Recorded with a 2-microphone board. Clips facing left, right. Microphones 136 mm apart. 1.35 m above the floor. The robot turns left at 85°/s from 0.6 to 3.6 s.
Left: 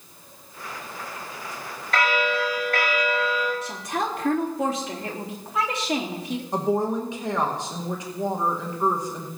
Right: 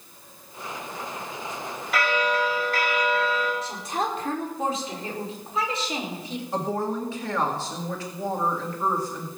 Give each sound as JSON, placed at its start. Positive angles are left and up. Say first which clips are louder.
{"t": 1.9, "sound": "a bell", "louder": "left 1 dB", "azimuth_deg": -175, "distance_m": 5.0}
{"t": 3.6, "sound": "a woman speaking", "louder": "even", "side_deg": 75, "distance_m": 3.5}
{"t": 6.5, "sound": "a woman speaking", "louder": "left 4 dB", "side_deg": 20, "distance_m": 1.7}